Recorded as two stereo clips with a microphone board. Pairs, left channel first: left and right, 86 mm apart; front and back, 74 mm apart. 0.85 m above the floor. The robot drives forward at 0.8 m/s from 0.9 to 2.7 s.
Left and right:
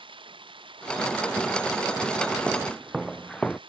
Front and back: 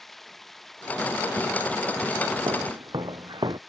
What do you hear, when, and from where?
0.0 s running water: 85° right; by 3.7 s 90° right
2.5 s footsteps: 170° right; by 3.6 s 170° left